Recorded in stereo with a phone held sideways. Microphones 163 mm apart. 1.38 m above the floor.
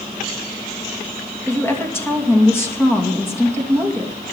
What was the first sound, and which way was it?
A woman speaking, 15° left (ahead or behind).